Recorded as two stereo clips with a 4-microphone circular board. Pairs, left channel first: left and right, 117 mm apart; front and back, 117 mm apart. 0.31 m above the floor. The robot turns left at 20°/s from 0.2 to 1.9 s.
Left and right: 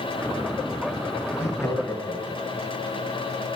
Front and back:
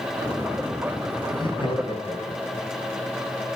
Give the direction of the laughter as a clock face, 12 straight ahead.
11 o'clock.